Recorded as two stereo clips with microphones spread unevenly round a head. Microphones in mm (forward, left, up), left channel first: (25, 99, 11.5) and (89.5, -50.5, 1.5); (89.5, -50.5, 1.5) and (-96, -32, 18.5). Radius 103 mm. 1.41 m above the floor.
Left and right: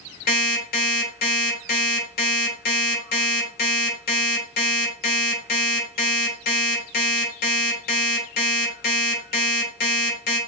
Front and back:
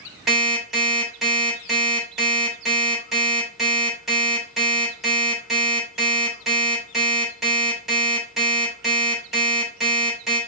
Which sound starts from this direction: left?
An alarm clock, at 0.3 s.